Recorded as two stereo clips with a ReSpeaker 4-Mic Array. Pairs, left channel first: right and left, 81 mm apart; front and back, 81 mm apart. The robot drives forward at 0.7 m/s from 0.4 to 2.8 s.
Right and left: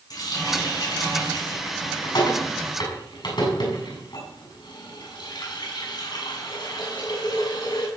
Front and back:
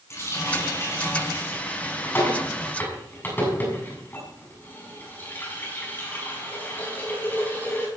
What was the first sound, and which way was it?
A running tap, 55° right.